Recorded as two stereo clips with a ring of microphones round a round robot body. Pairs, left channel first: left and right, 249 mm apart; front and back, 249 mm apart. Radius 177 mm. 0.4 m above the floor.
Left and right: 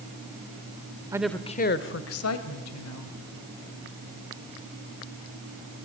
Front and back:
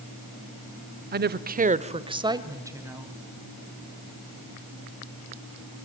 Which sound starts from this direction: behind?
A woman speaking, at 1.1 s.